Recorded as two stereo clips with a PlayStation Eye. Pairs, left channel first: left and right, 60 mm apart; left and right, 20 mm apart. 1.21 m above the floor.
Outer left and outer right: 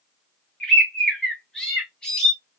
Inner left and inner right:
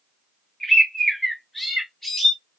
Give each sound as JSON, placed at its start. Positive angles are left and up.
{"t": 0.6, "sound": "a bird", "side_deg": 10, "distance_m": 1.4}